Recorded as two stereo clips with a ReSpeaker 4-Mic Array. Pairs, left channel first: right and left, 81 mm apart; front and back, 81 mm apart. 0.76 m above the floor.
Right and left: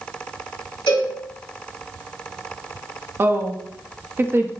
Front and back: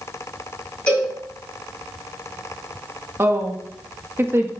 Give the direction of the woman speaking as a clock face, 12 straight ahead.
7 o'clock.